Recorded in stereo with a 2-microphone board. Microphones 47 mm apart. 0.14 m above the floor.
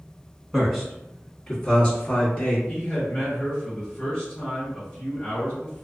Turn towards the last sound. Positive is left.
turn(degrees=20)  # may be behind; listen again after turning